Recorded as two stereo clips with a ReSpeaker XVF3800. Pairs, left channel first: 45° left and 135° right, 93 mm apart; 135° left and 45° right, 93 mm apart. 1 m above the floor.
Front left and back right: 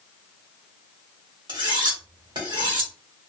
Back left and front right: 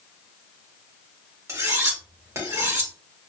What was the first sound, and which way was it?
Cutlery clinking, 100° right.